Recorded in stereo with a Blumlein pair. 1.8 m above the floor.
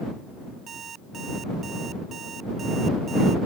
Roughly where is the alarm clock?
Ahead.